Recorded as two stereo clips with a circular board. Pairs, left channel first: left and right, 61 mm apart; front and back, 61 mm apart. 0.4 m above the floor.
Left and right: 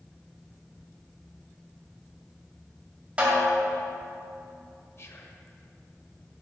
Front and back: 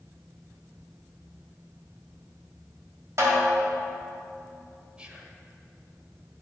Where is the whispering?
110° left, 1.3 m.